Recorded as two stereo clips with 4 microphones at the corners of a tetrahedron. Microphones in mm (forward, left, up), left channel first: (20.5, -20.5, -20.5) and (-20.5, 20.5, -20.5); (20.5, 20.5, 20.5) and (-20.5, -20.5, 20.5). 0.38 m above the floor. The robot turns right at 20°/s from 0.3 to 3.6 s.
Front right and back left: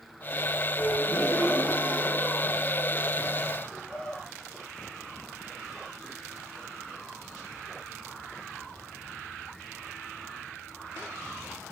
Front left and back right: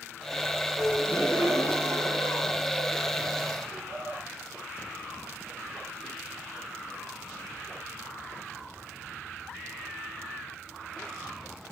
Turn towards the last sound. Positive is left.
turn(degrees=-115)